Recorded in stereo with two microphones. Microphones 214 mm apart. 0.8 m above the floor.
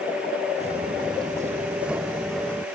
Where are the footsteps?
30° right (ahead or behind); by 2.6 s 5° left (ahead or behind).